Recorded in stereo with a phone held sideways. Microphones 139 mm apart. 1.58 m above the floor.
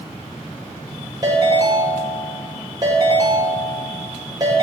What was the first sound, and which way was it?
A ringtone, 30° right (ahead or behind).